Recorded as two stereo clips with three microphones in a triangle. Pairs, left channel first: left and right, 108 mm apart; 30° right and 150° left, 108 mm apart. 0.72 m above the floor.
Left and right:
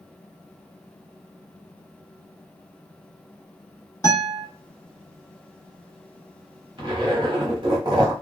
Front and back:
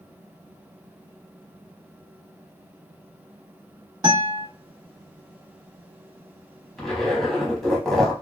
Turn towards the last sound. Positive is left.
turn(degrees=-115)